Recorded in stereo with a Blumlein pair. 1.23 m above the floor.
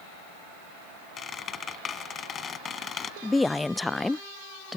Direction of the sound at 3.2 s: 10° left.